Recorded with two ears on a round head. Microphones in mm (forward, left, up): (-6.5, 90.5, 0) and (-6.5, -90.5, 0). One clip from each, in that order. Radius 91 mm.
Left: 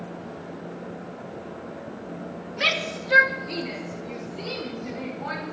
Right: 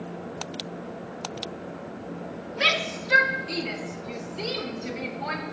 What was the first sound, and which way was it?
A shout, 5° right (ahead or behind).